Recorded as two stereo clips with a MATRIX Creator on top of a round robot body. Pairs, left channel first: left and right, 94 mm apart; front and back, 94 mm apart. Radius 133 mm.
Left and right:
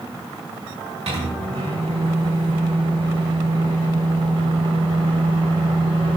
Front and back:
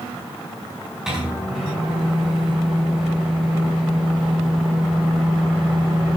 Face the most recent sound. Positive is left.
turn(degrees=-95)